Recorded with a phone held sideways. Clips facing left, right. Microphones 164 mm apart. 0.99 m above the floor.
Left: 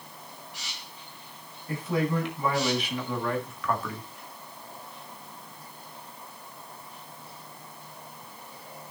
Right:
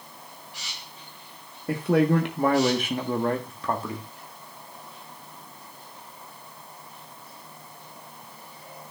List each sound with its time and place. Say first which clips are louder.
1.7 s a man speaking: right 7 dB; 75° right (ahead or behind), 1.4 m; by 4.1 s 25° right (ahead or behind), 1.7 m